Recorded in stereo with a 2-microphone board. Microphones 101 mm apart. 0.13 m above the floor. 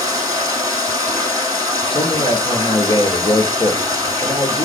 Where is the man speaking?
55° left (ahead or behind), 2 m.